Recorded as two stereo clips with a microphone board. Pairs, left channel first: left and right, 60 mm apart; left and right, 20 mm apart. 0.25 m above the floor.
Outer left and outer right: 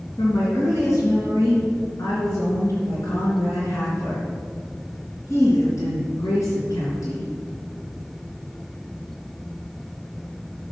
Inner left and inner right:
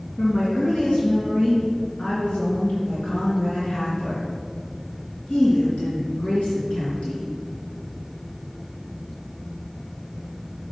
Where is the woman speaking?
65° left (ahead or behind), 3.5 m.